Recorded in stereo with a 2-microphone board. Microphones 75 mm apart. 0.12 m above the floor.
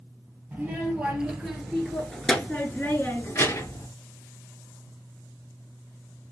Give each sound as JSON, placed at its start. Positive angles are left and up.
{"t": 0.5, "sound": "a child speaking", "side_deg": -15, "distance_m": 1.7}